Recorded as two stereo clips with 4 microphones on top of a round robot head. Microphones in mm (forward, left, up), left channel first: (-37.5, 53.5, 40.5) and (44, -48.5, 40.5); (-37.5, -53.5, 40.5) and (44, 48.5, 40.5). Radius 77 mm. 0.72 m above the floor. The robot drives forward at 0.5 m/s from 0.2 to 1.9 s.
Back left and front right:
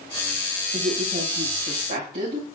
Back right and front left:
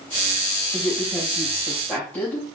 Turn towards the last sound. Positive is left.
turn(degrees=-45)